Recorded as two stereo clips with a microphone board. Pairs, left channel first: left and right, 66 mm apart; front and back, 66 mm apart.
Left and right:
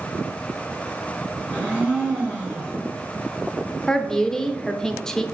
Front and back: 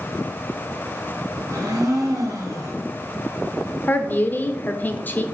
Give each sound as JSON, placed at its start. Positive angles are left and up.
{"t": 1.5, "sound": "a blender", "azimuth_deg": 160, "distance_m": 3.0}
{"t": 3.9, "sound": "a woman speaking", "azimuth_deg": 15, "distance_m": 0.8}